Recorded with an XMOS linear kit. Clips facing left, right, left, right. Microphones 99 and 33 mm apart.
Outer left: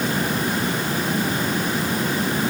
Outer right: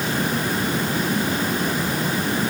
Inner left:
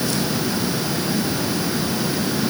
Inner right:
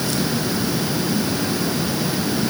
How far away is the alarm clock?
No alarm clock in this recording.